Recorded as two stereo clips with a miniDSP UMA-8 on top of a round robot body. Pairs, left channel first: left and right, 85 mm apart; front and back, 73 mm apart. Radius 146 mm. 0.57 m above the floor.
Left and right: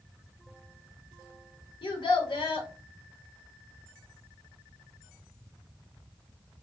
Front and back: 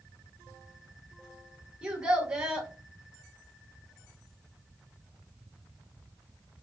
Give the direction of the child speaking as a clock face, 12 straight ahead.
8 o'clock.